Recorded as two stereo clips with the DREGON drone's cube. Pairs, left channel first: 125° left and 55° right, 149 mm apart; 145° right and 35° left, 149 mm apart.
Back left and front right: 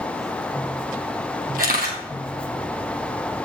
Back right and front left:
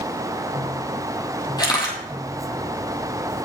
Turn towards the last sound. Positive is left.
turn(degrees=-80)